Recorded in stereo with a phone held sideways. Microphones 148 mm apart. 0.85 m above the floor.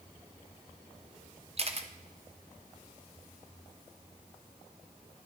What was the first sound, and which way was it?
A camera shutter, 45° right (ahead or behind).